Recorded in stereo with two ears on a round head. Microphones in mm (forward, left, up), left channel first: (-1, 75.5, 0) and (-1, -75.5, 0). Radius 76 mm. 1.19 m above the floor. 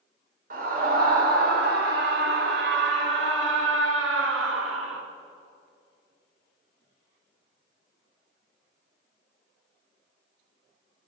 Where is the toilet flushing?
No toilet flushing in this recording.